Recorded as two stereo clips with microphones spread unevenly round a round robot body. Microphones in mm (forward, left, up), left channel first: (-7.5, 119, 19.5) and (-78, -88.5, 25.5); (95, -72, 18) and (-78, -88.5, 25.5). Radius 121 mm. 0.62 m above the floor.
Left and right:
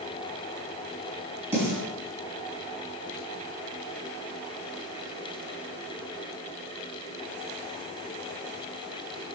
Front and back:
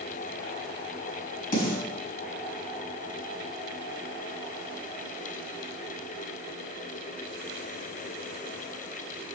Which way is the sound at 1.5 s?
30° right.